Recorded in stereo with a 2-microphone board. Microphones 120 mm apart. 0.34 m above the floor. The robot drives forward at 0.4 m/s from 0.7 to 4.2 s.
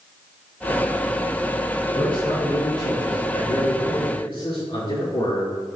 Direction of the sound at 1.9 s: 45° left (ahead or behind).